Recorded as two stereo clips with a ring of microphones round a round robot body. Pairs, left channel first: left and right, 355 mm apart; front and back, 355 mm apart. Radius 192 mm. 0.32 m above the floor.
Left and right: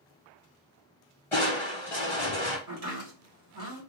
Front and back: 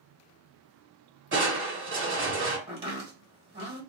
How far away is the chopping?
About 1.6 m.